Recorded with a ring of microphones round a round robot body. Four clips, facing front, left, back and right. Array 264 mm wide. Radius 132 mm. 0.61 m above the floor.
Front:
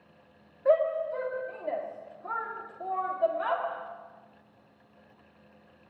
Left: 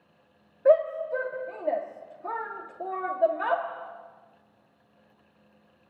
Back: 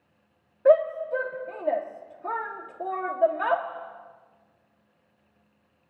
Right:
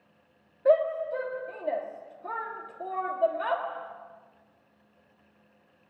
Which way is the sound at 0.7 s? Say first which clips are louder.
Left 2 dB, back 5 dB; 155° left.